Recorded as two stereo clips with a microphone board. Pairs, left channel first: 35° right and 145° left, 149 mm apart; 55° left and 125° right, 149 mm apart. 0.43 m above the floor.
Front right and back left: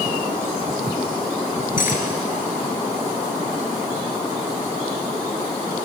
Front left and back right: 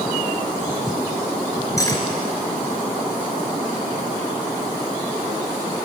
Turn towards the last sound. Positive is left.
turn(degrees=-10)